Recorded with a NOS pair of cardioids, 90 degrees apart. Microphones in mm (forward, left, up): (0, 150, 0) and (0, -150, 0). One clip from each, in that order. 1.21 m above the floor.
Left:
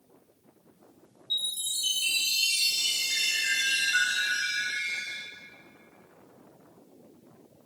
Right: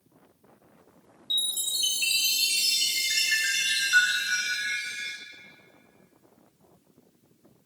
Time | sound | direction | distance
1.3 | a chime | 65° right | 1.8 m